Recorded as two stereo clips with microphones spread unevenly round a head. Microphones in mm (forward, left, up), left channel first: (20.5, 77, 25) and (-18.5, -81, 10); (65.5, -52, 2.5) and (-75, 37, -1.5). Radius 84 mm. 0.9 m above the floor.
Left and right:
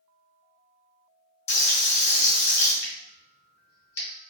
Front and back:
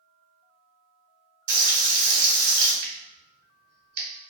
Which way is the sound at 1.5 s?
115° left.